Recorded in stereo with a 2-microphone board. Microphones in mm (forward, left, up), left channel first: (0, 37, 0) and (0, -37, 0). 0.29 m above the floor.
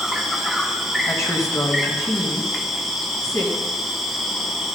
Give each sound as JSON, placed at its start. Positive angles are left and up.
{"t": 0.0, "sound": "an insect", "side_deg": 0, "distance_m": 1.1}
{"t": 1.1, "sound": "a woman speaking", "side_deg": 45, "distance_m": 2.5}